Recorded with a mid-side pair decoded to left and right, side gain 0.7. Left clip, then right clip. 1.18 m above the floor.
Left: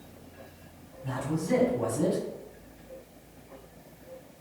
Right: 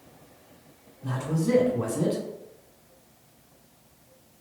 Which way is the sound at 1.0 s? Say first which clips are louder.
Right 3 dB; 70° right.